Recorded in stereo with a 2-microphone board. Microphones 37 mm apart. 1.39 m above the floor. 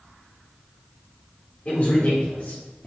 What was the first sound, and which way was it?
A man speaking, 35° left (ahead or behind).